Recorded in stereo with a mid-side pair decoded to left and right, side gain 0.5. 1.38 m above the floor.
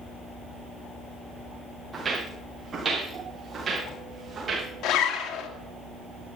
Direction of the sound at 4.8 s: 70° left.